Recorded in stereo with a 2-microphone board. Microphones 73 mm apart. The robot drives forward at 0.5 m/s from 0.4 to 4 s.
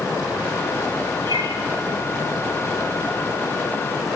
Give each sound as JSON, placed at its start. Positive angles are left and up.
{"t": 1.2, "sound": "a bird", "side_deg": -80, "distance_m": 4.0}